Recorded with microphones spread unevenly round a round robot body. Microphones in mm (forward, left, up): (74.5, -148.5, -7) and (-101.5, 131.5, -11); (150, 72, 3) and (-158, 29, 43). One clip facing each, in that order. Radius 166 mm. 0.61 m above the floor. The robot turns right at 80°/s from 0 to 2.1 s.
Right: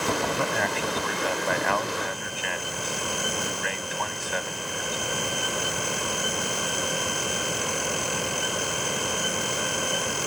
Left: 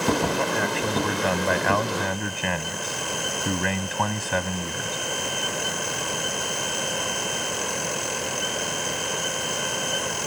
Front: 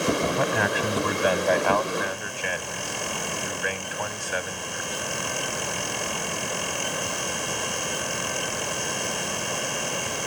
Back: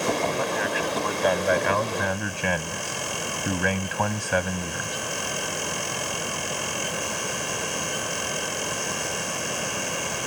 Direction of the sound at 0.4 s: 20° left.